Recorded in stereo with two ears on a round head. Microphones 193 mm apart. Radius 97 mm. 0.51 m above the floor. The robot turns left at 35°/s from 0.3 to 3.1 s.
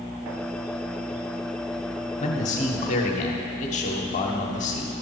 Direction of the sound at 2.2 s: 110° left.